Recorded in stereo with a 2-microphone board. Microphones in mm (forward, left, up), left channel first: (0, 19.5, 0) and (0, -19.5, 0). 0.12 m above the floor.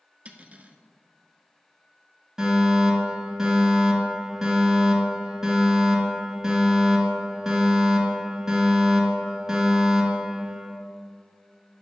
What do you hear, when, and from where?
0.2 s cutlery clinking: 35° right (ahead or behind), 1.0 m
2.4 s a fire alarm: 15° right (ahead or behind), 2.5 m